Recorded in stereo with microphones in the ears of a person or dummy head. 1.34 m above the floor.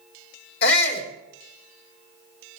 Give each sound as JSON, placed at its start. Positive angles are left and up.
{"t": 0.6, "sound": "a shout", "side_deg": 55, "distance_m": 3.5}